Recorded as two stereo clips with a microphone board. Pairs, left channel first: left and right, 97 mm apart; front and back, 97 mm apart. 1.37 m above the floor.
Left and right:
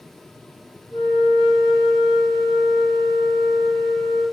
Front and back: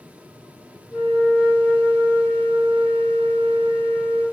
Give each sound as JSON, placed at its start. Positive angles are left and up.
{"t": 0.9, "sound": "a flute", "azimuth_deg": 85, "distance_m": 1.2}